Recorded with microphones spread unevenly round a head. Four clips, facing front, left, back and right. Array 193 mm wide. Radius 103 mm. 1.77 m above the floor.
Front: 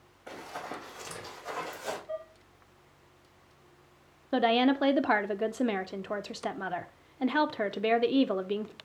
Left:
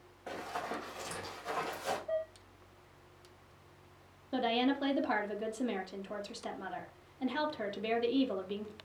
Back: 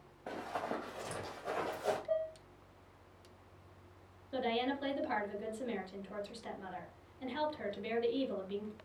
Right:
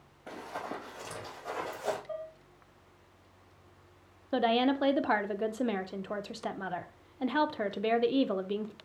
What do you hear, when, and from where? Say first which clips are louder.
0.3 s running footsteps: even, back 1 dB; straight behind, 3 m; by 2.0 s 135° right, 3 m
2.1 s dishes clattering: left 4 dB, back 3 dB; 155° left, 2.5 m
4.3 s a woman speaking: right 4 dB, front 11 dB; 30° right, 0.6 m